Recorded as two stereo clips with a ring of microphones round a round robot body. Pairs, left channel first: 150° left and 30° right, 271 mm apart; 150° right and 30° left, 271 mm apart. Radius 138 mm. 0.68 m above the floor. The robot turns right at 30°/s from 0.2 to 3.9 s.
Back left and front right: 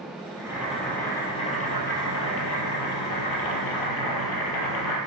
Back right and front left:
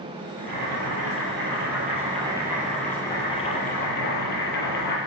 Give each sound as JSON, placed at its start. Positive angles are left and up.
{"t": 0.4, "sound": "boiling", "azimuth_deg": 50, "distance_m": 5.0}